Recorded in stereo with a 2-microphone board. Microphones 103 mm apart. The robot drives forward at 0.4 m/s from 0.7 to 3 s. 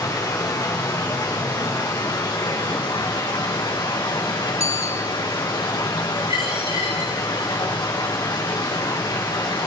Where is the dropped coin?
40° right (ahead or behind), 6 m.